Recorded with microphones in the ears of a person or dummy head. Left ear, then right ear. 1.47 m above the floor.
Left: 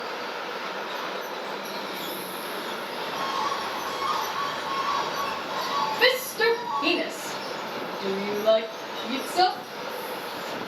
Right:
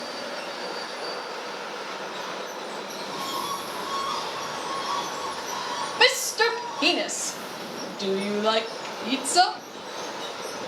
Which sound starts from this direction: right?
A shout, at 6.0 s.